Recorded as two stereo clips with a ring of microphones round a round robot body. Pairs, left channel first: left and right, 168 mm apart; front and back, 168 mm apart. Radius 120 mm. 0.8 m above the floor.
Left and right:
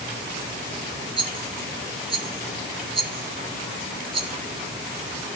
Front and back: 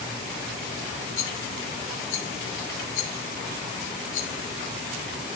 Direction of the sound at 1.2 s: 30° right.